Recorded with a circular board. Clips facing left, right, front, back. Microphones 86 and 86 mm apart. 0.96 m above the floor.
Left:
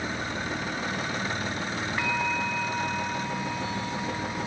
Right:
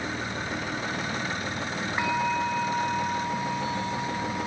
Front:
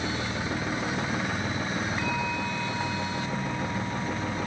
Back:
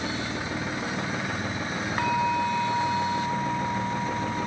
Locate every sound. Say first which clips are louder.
2.0 s a bell: right 4 dB, back 5 dB; 160° right, 1.2 m